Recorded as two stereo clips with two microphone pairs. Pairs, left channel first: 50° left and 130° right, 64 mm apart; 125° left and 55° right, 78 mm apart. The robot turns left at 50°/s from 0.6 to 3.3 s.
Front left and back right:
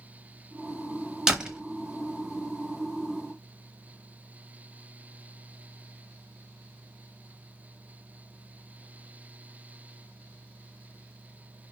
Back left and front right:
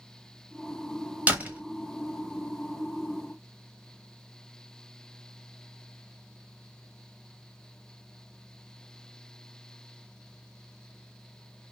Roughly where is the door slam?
Ahead right.